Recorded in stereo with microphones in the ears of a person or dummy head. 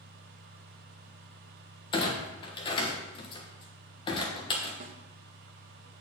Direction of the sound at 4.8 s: 40° right (ahead or behind).